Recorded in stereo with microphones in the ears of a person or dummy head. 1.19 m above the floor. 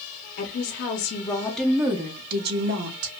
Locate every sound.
0.4 s a woman speaking: 55° left (ahead or behind), 0.9 m; by 3.1 s 60° right (ahead or behind), 1.0 m